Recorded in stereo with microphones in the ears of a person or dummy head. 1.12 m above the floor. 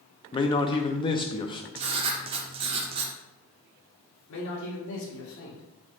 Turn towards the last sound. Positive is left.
turn(degrees=70)  # may be behind; listen again after turning